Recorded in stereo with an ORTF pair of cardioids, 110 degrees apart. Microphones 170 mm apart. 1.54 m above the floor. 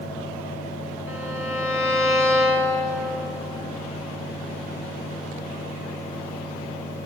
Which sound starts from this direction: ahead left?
A fan, at 0.0 s.